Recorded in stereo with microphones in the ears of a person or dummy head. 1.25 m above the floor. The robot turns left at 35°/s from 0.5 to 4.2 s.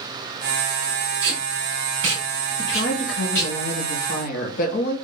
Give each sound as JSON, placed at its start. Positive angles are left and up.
{"t": 1.2, "sound": "tape being pulled", "side_deg": -55, "distance_m": 1.7}
{"t": 2.6, "sound": "a woman speaking", "azimuth_deg": 115, "distance_m": 1.3}